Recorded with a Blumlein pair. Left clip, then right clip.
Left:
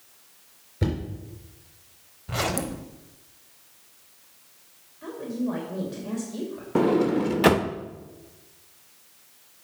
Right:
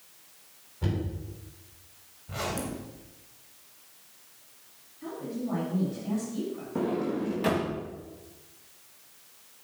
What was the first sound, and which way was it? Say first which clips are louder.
Knocking: left 5 dB; 55° left.